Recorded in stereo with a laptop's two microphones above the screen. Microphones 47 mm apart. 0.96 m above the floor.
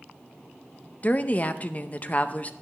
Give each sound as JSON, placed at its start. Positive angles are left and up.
{"t": 1.0, "sound": "a woman speaking", "side_deg": 35, "distance_m": 0.6}